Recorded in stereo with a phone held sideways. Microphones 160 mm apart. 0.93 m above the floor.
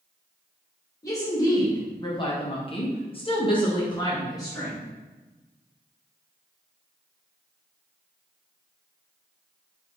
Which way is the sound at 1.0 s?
20° left (ahead or behind).